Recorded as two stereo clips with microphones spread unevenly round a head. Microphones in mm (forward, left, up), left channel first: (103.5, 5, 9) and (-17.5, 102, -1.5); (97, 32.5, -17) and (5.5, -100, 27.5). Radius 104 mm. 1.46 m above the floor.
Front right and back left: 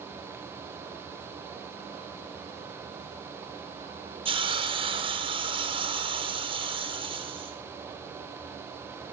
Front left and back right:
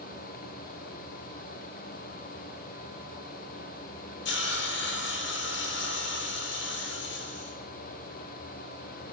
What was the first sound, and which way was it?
A hiss, 85° left.